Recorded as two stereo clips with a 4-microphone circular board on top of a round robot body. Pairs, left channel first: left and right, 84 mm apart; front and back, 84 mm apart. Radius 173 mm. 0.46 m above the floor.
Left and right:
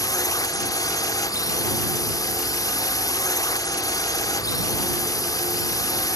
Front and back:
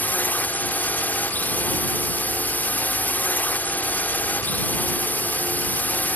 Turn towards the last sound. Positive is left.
turn(degrees=65)